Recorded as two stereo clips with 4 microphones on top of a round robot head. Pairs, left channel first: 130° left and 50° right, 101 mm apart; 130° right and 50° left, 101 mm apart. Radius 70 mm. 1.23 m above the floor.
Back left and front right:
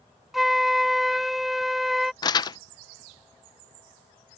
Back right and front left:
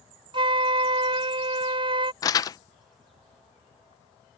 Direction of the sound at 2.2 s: 175° left.